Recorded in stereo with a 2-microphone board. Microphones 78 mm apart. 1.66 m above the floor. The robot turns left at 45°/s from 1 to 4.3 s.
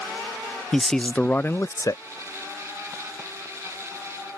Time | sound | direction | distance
0.7 | a man speaking | 170° left | ?